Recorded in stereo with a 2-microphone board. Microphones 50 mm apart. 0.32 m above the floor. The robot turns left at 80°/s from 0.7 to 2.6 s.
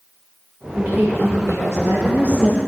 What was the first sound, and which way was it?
A woman speaking, 25° right.